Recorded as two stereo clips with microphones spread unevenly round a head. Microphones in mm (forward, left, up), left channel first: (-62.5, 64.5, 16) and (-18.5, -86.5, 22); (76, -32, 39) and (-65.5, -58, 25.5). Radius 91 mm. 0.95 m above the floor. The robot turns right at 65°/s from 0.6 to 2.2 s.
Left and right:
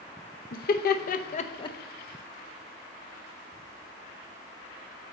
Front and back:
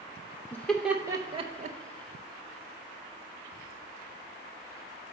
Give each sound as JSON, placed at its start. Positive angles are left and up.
{"t": 0.5, "sound": "laughter", "azimuth_deg": 95, "distance_m": 0.6}